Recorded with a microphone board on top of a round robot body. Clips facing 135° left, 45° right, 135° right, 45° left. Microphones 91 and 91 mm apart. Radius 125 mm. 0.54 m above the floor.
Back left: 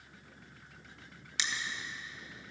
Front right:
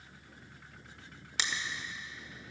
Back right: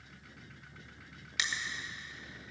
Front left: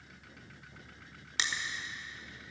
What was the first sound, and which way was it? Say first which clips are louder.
Crushing: front right 1 dB, front left 1 dB; 10° right.